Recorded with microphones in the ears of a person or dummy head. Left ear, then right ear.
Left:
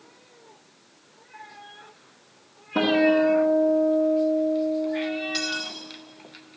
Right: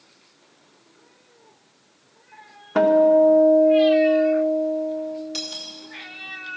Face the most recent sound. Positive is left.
turn(degrees=-5)  # may be behind; listen again after turning